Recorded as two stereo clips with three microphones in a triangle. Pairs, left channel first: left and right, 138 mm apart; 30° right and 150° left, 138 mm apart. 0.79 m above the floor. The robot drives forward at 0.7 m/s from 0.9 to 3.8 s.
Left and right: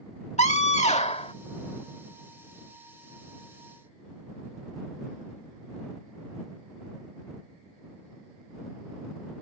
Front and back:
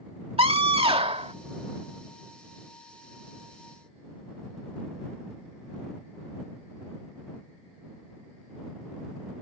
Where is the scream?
110° left; by 1.3 s 120° left.